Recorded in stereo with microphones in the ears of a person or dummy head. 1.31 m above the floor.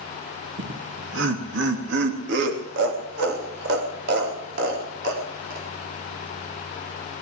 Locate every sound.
0.6 s laughter: 70° right (ahead or behind), 1.7 m; by 5.7 s 65° right (ahead or behind), 4.5 m